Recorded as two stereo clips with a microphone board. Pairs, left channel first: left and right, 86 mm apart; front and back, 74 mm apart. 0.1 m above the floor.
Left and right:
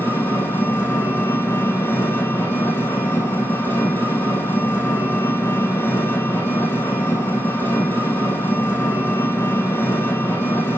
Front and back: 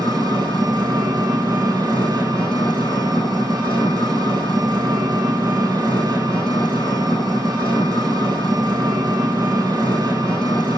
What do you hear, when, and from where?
0.0 s an engine running: 150° left, 3 m